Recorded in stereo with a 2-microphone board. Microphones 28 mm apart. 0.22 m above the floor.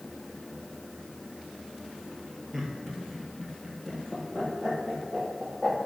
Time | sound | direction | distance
2.5 | laughter | 5° right (ahead or behind) | 4 m